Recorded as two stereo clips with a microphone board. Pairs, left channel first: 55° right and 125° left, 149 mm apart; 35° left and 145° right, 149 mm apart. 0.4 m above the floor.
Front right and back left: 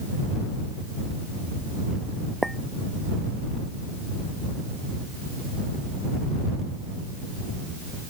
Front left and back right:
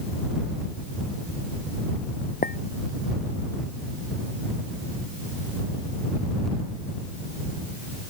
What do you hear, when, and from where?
2.4 s a clink: 35° left